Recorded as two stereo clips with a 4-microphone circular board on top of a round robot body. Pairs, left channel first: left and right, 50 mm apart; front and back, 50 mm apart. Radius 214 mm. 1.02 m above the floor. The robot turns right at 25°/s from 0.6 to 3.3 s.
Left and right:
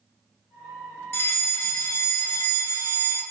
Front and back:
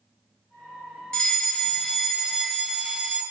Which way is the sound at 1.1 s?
55° left.